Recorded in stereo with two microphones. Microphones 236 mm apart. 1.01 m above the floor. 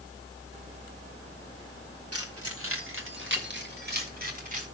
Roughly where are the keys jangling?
Right.